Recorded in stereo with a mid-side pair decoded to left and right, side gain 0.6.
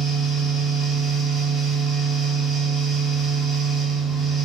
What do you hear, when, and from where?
0.0 s a fan: 35° right, 0.9 m